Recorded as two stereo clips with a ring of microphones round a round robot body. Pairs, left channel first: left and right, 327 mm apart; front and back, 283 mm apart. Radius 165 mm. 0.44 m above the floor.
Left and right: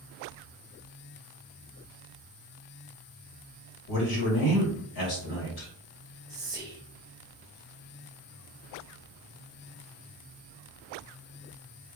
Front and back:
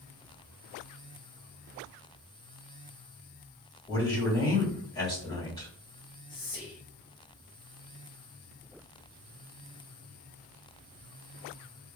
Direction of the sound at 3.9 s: 75° left.